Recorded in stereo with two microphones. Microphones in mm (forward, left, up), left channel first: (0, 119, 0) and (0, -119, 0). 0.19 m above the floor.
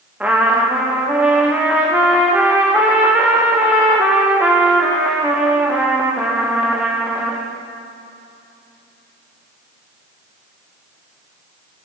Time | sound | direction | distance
0.2 | a trumpet | 5° right (ahead or behind) | 5 m